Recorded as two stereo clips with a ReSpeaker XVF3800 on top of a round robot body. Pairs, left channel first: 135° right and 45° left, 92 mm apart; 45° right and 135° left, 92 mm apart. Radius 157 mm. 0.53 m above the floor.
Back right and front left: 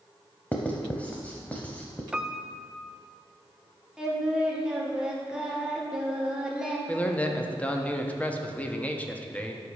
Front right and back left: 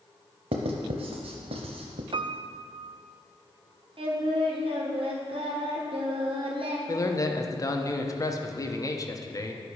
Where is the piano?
125° left, 0.5 m.